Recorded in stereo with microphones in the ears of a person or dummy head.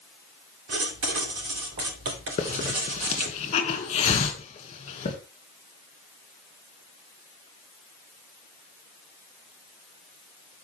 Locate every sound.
0.7 s writing: 70° right (ahead or behind), 3.5 m
2.4 s a hiss: 35° left (ahead or behind), 1.9 m